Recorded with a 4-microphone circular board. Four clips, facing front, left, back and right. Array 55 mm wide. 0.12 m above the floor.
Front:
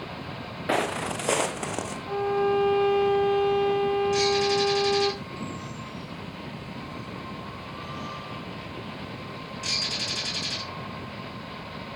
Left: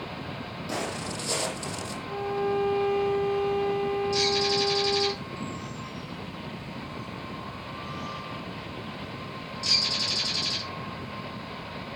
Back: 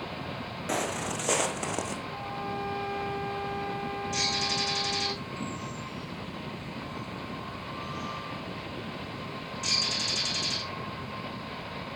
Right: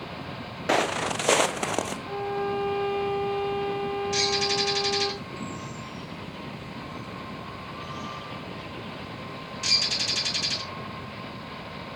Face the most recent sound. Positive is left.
turn(degrees=-80)